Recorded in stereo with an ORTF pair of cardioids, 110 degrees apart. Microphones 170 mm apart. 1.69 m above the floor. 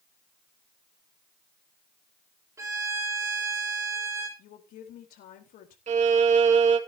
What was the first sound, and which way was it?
A violin, 20° right.